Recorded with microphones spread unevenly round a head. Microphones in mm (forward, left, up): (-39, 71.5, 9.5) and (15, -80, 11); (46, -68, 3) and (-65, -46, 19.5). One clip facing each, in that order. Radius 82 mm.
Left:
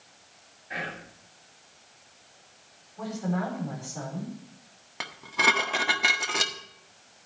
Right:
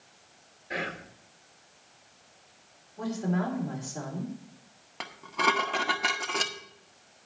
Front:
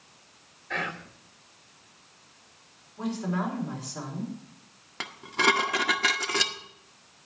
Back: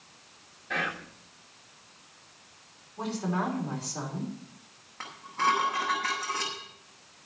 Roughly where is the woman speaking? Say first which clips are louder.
Right 1 dB, front 1 dB; behind right.